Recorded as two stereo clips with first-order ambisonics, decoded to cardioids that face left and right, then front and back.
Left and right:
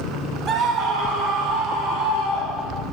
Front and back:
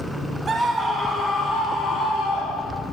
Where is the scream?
120° right, 0.8 m; by 2.8 s 65° right, 2.5 m.